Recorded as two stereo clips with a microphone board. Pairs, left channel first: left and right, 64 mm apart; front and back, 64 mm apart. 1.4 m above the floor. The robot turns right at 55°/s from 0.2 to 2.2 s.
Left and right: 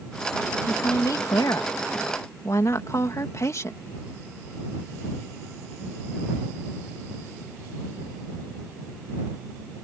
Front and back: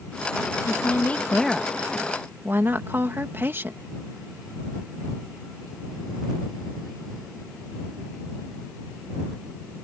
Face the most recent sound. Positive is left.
turn(degrees=125)